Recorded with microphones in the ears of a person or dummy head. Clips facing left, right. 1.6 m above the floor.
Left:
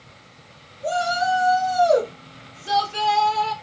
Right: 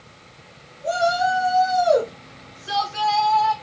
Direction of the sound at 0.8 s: 60° left (ahead or behind).